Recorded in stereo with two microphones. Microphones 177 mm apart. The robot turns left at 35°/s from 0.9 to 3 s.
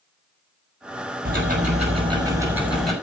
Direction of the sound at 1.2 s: 125° right.